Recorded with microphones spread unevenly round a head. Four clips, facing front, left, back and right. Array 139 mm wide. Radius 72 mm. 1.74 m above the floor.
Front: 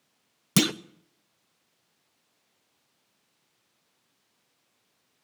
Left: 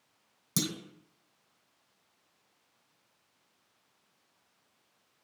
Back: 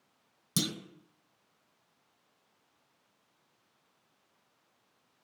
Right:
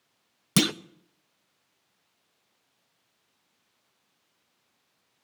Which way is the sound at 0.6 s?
40° right.